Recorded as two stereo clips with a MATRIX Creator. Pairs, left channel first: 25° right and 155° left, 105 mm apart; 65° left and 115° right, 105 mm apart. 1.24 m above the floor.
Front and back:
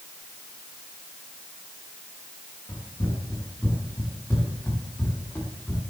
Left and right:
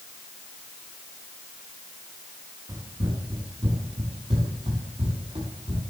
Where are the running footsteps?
80° right, 4.5 m; by 5.8 s 95° right, 6.5 m.